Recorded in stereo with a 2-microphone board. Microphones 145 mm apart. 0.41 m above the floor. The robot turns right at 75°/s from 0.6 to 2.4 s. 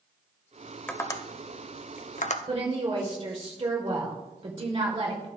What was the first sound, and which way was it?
Tapping, 10° left (ahead or behind).